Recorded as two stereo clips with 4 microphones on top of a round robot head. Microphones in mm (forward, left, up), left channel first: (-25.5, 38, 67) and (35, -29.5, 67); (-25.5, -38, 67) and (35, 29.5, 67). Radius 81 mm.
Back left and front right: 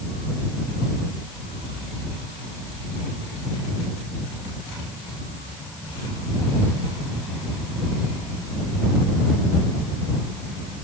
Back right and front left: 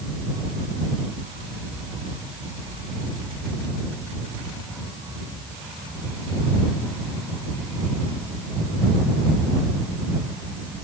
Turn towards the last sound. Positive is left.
No sound to turn to.